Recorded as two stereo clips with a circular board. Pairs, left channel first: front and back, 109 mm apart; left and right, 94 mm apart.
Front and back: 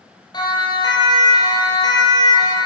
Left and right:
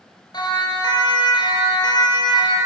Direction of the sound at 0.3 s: 50° left.